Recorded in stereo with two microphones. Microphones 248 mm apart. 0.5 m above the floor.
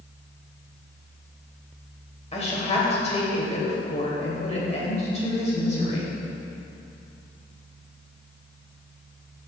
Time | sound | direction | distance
2.3 | a woman speaking | 25° left (ahead or behind) | 2.5 m